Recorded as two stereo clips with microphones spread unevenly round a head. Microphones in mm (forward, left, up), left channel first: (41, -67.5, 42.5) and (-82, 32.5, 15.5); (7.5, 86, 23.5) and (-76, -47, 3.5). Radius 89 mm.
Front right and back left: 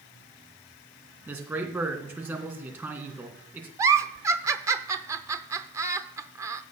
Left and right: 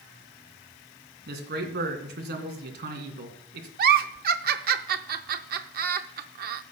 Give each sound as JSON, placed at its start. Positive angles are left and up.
{"t": 1.3, "sound": "a man speaking", "azimuth_deg": -140, "distance_m": 2.5}
{"t": 3.8, "sound": "a giggle", "azimuth_deg": -140, "distance_m": 0.6}